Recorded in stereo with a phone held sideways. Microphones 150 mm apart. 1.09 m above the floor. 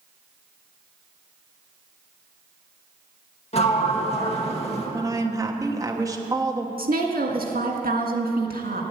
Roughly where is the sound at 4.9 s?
Right.